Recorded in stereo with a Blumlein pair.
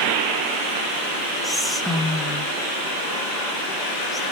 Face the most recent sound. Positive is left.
turn(degrees=0)